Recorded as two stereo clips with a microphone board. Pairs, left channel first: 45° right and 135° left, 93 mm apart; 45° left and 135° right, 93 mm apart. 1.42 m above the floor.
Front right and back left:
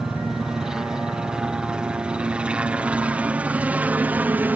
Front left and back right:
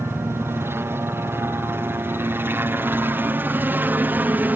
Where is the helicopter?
145° right; by 4.6 s straight behind.